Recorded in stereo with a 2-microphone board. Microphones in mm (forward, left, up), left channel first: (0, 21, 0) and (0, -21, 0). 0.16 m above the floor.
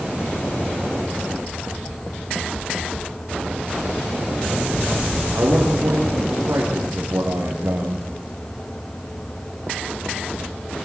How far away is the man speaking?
About 8 m.